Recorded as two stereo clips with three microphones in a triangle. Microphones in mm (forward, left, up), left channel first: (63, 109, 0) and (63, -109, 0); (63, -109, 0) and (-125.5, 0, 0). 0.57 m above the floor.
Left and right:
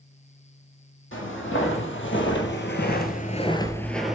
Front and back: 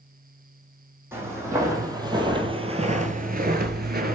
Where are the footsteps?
70° left, 1.7 m; by 4.1 s 175° right, 0.8 m.